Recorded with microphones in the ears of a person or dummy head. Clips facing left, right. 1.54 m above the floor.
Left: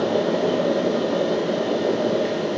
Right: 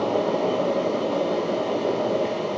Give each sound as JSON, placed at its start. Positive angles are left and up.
{"t": 0.0, "sound": "a fan", "side_deg": 10, "distance_m": 0.8}